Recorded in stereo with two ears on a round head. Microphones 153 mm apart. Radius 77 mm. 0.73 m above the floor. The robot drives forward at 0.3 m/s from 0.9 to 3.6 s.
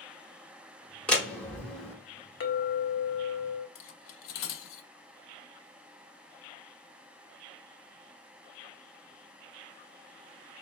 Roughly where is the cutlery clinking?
Left.